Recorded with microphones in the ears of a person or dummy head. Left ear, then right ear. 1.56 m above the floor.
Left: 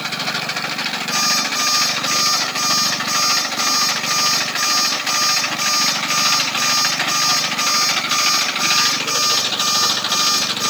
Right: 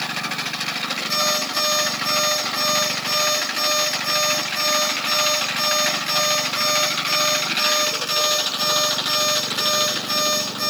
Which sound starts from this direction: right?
An alarm clock, at 1.1 s.